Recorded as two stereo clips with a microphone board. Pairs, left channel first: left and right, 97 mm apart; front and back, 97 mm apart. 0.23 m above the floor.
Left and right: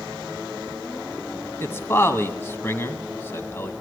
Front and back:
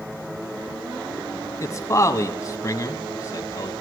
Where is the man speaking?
40° left, 1.5 m.